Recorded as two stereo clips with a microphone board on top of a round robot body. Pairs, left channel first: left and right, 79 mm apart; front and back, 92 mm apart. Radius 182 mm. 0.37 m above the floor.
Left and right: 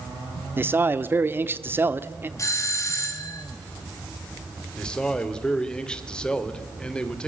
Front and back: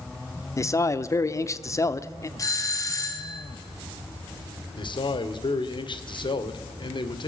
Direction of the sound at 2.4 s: 50° left.